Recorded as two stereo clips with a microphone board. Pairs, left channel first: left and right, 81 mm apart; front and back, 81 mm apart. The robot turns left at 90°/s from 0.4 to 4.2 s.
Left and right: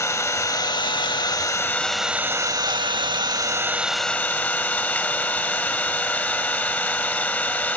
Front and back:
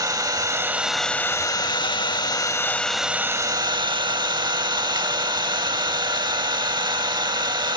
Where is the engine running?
140° left, 0.8 m; by 7.8 s 160° left, 0.8 m.